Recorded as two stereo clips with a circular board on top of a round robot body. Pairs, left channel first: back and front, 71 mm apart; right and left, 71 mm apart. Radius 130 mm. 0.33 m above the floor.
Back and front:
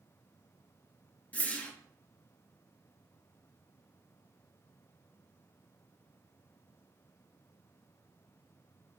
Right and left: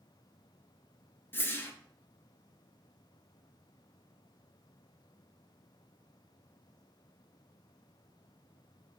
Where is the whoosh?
125° right, 0.8 m.